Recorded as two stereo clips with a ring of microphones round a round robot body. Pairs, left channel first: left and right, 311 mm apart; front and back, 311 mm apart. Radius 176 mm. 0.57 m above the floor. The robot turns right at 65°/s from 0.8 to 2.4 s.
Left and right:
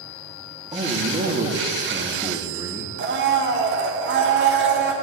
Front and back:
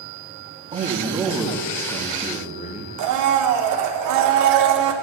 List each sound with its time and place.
0.7 s a man speaking: 135° right, 1.0 m; by 2.9 s 30° right, 1.0 m
3.0 s a blender: 145° right, 0.6 m